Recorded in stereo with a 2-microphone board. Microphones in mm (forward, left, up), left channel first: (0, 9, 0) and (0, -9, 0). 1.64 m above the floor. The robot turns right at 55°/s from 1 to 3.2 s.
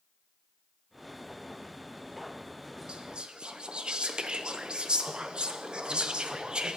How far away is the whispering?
About 0.9 m.